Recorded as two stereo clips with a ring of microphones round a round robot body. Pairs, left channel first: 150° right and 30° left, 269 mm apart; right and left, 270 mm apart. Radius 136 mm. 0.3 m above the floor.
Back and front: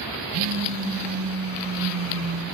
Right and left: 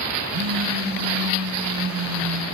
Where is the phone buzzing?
55° left, 1.5 m.